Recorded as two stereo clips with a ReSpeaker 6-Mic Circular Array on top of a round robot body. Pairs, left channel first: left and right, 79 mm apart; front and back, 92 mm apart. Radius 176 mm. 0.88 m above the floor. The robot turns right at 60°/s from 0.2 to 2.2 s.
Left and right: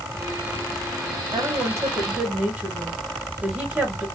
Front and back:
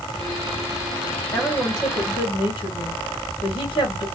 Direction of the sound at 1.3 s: 65° right.